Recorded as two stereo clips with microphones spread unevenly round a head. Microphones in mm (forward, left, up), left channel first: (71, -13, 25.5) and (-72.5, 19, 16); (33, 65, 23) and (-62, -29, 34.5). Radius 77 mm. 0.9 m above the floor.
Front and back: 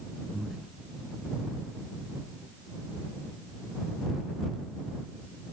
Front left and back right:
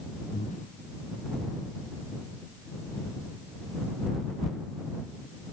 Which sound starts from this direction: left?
Breathing, at 0.3 s.